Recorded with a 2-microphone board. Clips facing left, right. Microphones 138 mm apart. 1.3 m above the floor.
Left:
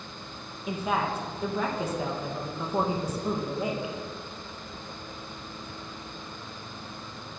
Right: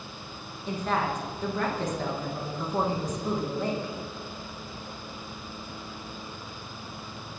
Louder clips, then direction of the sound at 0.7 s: Even; 10° left (ahead or behind).